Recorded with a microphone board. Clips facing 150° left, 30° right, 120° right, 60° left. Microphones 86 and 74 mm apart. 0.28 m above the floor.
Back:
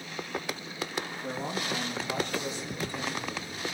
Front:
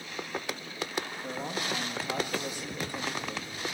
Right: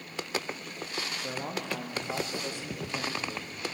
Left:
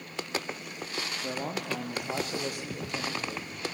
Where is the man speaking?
65° left, 5.5 m; by 3.6 s 35° left, 6.5 m.